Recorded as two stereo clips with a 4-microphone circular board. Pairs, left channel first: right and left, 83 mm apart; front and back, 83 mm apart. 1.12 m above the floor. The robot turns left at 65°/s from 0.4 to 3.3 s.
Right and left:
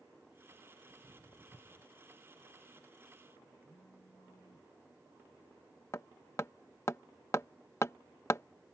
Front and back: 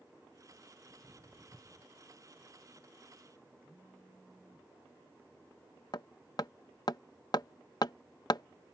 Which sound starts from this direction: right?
A phone buzzing, at 3.6 s.